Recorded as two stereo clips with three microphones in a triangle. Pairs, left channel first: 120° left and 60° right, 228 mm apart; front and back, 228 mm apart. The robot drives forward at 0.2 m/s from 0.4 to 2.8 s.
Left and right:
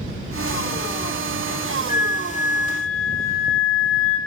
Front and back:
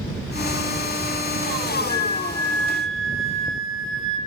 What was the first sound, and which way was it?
A flute, 80° left.